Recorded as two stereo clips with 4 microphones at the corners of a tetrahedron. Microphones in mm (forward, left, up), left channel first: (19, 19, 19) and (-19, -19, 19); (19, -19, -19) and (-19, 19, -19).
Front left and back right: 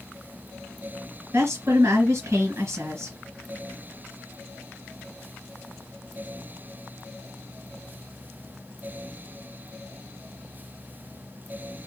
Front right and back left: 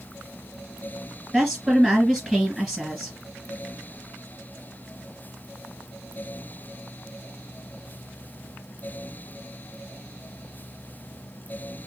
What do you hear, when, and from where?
1.3 s a woman speaking: 155° right, 2 m